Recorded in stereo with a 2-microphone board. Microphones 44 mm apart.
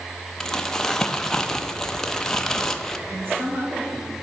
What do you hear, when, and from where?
0.4 s crumpling: 10° left (ahead or behind), 0.6 m
3.1 s a woman speaking: 65° right (ahead or behind), 2.5 m